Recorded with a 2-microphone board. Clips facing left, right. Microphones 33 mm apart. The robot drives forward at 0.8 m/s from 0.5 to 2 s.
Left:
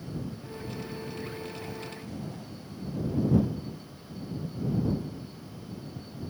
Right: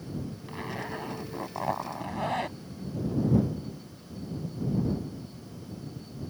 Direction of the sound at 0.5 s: 75° right (ahead or behind).